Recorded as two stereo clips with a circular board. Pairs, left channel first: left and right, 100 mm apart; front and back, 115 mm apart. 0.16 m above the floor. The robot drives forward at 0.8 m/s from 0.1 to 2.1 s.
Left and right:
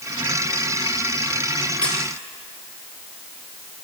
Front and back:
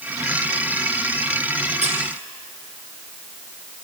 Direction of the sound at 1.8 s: 170° left.